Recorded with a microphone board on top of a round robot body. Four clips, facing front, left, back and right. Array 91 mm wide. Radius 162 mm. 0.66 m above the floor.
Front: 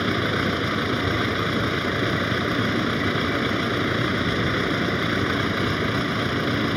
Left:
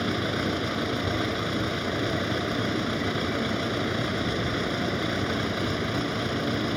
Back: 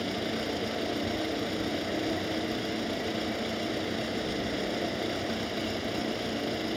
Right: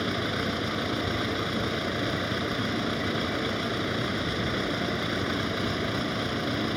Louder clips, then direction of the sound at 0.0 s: Left 2 dB, front 8 dB; straight ahead.